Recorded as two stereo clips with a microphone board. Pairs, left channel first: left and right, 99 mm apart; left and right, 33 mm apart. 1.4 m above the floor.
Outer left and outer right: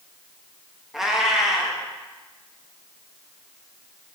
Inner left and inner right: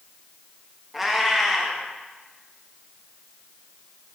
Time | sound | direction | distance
0.9 | a cat meowing | 5° right (ahead or behind) | 0.9 m